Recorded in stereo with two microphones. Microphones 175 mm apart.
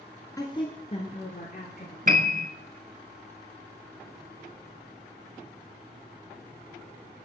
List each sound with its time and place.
0.4 s a woman speaking: 20° left (ahead or behind), 1.1 m; by 2.0 s 55° left (ahead or behind), 1.8 m
2.1 s a piano: 45° right (ahead or behind), 0.6 m